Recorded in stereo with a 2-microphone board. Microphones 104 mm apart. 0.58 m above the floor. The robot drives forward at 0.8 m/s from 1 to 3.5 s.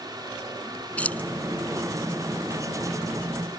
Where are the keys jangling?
15° left (ahead or behind).